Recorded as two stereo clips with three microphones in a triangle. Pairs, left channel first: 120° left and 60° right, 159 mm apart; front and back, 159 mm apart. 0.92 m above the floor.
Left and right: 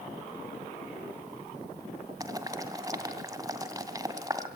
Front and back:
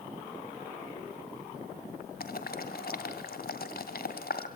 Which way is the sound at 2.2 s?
10° left.